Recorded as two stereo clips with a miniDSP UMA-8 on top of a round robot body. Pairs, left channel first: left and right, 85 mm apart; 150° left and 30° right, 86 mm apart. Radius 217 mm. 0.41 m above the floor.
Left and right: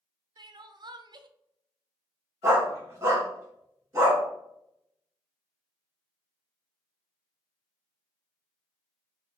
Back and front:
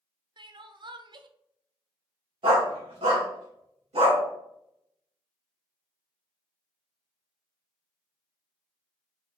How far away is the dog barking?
About 2 m.